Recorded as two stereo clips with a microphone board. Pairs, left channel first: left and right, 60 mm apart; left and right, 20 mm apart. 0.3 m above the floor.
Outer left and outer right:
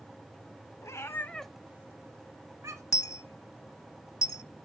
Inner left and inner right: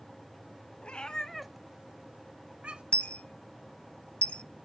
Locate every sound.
0.8 s a cat meowing: 60° left (ahead or behind), 1.1 m; by 2.8 s 65° right (ahead or behind), 2 m
2.9 s a dropped coin: 70° left (ahead or behind), 0.5 m